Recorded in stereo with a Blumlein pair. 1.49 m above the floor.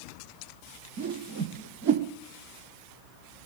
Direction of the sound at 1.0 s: 50° right.